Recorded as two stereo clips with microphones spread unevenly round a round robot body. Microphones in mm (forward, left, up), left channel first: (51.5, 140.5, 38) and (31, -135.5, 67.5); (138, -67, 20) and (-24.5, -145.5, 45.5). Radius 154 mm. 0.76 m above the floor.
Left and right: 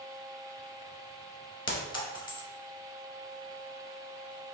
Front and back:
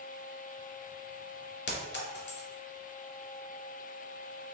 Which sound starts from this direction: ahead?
A clink, at 1.7 s.